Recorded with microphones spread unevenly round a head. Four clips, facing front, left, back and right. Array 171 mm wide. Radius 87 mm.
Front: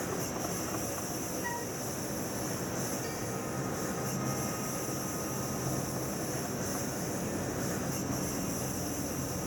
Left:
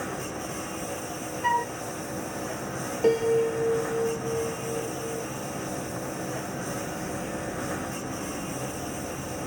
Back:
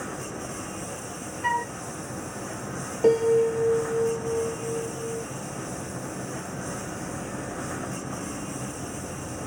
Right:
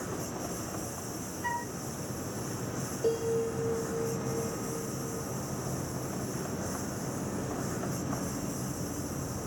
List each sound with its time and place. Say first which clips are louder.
0.0 s a lawn mower: left 3 dB, back 1 dB; 85° left
1.4 s a flute: left 10 dB, back 10 dB; 110° left
3.0 s a piano: left 7 dB, back 18 dB; 155° left